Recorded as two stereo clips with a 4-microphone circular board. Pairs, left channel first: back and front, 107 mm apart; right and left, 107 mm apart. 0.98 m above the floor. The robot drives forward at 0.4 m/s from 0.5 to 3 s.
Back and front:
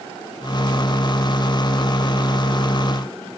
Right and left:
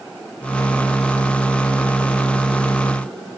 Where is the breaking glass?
I don't hear breaking glass.